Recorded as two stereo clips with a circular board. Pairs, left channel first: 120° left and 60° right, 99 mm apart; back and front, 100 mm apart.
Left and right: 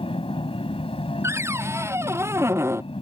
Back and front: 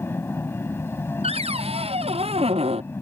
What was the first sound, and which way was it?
An aircraft, 115° left.